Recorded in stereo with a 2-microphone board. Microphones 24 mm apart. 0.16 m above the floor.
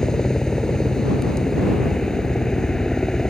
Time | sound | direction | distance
0.0 | a helicopter | 25° left (ahead or behind) | ?